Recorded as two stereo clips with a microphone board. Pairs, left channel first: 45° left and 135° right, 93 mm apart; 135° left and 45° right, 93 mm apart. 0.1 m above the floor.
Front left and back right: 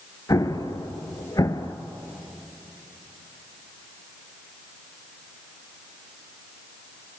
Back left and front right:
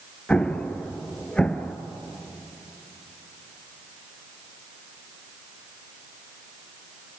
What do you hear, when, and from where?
0.3 s an explosion: 60° left, 1.2 m